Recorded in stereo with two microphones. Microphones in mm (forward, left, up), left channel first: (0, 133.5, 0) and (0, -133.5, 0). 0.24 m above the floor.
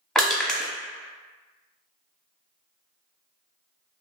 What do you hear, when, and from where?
0.1 s crushing: centre (ahead or behind), 0.8 m